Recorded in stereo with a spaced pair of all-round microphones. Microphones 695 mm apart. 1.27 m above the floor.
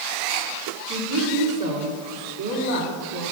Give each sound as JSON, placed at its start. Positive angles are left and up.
{"t": 0.9, "sound": "a woman speaking", "side_deg": -25, "distance_m": 3.0}